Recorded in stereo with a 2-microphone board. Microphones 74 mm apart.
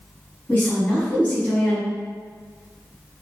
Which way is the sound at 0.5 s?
25° left (ahead or behind).